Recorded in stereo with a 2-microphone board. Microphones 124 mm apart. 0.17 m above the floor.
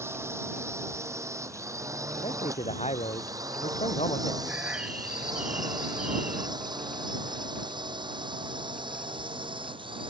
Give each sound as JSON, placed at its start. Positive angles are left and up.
{"t": 0.0, "sound": "a drone", "side_deg": -20}
{"t": 2.2, "sound": "a man speaking", "side_deg": 60}
{"t": 4.5, "sound": "a bird", "side_deg": -10}